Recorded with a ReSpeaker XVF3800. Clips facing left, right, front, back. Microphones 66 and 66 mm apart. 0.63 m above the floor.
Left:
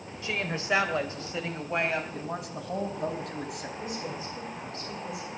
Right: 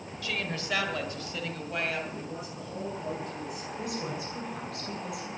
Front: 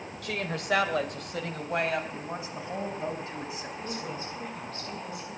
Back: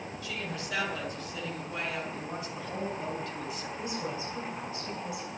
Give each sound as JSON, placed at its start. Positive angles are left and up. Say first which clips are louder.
{"t": 0.2, "sound": "a woman speaking", "louder": "left 3 dB, front 7 dB", "azimuth_deg": 25, "distance_m": 2.5}
{"t": 2.1, "sound": "a man speaking", "louder": "left 3 dB, front 1 dB", "azimuth_deg": 65, "distance_m": 3.5}
{"t": 3.8, "sound": "a woman speaking", "louder": "right 3 dB, back 2 dB", "azimuth_deg": -105, "distance_m": 8.0}